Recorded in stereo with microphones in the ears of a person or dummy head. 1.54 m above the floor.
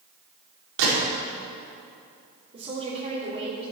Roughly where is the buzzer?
No buzzer in this recording.